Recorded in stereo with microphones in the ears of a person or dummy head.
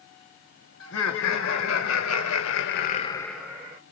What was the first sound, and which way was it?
Laughter, 75° left (ahead or behind).